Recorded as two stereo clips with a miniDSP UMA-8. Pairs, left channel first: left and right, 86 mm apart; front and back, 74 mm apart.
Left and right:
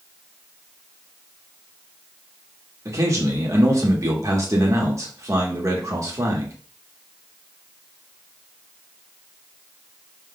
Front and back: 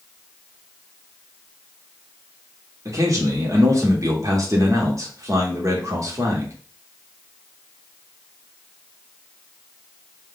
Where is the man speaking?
140° right, 1.5 m.